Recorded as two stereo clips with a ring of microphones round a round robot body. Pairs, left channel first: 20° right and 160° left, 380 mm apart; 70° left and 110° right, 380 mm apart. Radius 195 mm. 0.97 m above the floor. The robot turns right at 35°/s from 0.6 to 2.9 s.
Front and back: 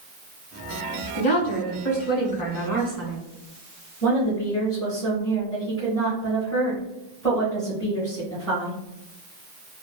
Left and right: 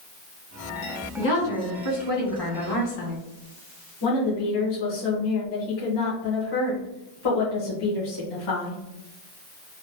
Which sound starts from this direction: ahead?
A woman speaking, at 1.2 s.